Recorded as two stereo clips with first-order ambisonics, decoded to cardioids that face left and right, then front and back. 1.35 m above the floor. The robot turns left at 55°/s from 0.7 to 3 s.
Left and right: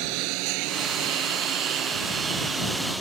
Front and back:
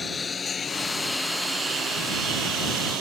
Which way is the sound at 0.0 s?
75° right.